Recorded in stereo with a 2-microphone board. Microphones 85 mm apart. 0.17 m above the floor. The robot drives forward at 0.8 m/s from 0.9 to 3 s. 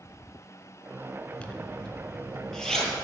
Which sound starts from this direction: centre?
A zipper, at 1.4 s.